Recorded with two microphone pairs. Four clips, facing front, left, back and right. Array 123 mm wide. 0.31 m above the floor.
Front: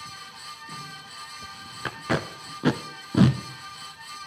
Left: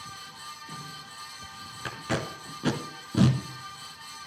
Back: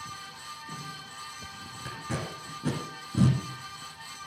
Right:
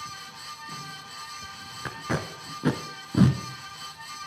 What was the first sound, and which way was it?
Tape being pulled, 10° right.